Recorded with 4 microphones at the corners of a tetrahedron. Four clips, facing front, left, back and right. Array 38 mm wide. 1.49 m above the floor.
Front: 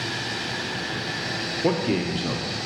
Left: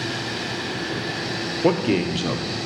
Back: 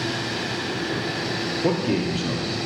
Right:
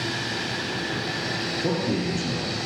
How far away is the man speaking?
About 0.6 m.